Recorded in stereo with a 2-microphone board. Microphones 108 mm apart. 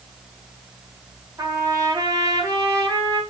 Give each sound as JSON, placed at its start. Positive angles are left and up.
{"t": 1.4, "sound": "a trumpet", "side_deg": -35, "distance_m": 2.5}